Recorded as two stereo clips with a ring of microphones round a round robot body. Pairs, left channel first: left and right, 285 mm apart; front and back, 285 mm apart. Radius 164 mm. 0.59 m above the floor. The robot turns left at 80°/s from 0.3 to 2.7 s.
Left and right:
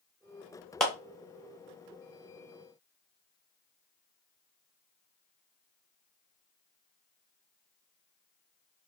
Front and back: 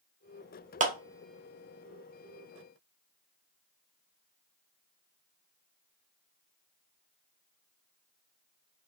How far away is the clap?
About 0.9 m.